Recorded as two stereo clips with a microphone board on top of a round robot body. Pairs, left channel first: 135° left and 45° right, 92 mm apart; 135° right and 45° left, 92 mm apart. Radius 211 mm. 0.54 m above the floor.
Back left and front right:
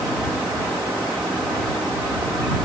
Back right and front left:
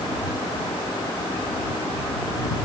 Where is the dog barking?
No dog barking in this recording.